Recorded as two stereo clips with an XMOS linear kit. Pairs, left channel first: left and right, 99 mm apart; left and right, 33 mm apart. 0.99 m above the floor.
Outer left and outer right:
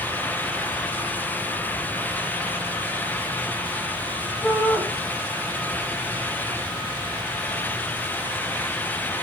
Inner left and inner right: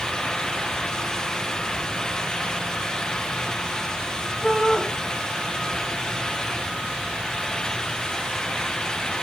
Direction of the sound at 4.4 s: 25° left (ahead or behind).